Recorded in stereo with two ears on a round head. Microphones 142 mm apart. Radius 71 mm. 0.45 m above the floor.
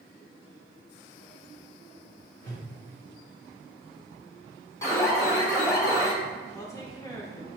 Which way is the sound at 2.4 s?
25° left (ahead or behind).